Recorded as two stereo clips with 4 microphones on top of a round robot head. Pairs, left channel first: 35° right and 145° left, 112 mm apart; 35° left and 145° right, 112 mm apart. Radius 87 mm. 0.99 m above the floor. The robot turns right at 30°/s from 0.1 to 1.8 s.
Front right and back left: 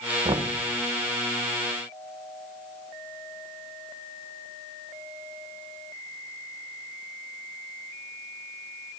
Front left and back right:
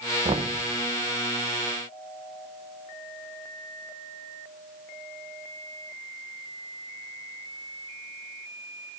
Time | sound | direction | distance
0.2 | knocking | straight behind | 0.8 m